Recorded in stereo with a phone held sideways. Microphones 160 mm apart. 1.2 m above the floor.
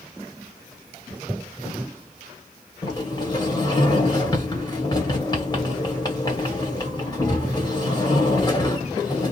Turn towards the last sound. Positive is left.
turn(degrees=25)  # may be behind; listen again after turning